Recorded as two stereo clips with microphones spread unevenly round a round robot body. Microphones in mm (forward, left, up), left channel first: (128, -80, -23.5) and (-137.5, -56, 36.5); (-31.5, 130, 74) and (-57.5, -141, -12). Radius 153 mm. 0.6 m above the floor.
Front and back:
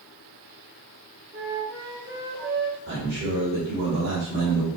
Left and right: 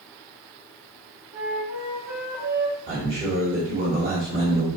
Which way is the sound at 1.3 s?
130° right.